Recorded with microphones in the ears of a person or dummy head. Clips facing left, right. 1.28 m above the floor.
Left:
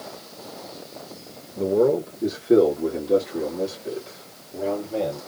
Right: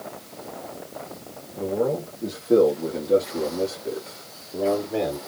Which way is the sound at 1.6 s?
50° left (ahead or behind).